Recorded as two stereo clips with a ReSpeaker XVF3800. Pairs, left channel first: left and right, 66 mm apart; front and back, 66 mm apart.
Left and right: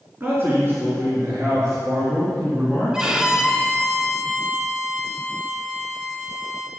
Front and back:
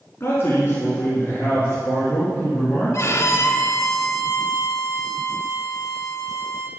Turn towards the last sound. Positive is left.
turn(degrees=-15)